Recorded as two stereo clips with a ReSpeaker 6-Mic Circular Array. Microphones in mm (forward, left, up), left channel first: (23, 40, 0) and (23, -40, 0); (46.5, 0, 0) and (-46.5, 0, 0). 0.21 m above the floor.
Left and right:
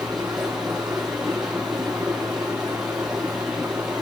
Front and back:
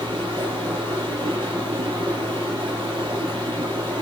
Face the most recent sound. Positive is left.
turn(degrees=-170)